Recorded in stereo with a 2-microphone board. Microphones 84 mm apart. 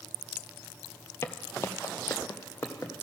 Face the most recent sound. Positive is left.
turn(degrees=30)  # may be behind; listen again after turning